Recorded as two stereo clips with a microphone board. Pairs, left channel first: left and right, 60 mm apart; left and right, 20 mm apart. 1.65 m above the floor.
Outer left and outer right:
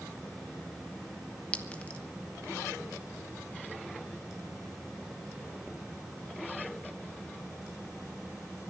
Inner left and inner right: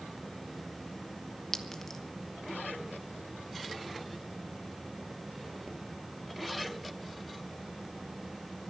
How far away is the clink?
About 1.1 m.